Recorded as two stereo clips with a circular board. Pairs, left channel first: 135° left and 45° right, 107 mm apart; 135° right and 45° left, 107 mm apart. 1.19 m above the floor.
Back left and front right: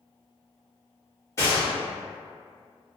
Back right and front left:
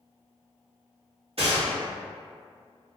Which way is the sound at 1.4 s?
75° left.